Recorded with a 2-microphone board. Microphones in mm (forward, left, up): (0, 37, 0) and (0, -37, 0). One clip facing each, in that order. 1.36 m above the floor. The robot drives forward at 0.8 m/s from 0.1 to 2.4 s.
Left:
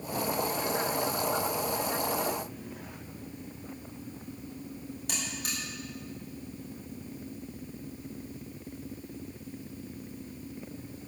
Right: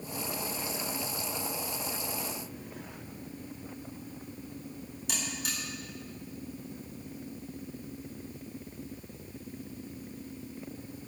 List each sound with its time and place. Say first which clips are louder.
5.1 s a buzzer: right 1 dB; 50° left (ahead or behind), 7 m